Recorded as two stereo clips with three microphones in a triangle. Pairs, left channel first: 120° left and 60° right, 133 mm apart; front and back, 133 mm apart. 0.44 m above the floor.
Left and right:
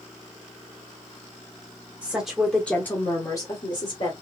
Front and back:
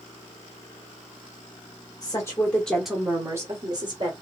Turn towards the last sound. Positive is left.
turn(degrees=150)